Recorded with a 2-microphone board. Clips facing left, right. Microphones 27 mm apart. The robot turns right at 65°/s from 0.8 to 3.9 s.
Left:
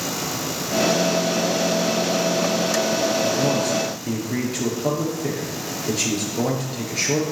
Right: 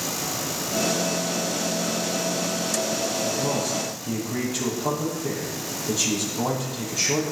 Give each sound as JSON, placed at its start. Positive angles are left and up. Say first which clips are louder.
{"t": 3.2, "sound": "a man speaking", "louder": "left 5 dB", "azimuth_deg": 75, "distance_m": 6.0}